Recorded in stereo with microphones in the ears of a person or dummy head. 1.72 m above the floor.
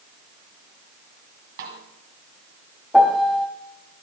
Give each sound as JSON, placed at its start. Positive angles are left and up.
{"t": 1.6, "sound": "a snare drum", "side_deg": -45, "distance_m": 2.0}
{"t": 2.9, "sound": "a piano", "side_deg": 0, "distance_m": 1.5}